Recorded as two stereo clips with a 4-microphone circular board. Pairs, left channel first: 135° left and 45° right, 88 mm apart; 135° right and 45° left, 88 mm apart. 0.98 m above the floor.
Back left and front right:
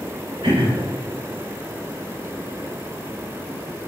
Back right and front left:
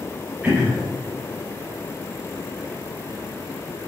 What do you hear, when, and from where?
0.4 s throat clearing: 30° right, 3 m